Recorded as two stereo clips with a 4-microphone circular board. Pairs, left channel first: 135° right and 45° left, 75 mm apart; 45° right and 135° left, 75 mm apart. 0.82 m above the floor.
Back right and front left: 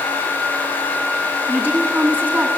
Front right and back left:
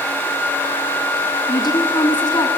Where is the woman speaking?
25° right, 8 m.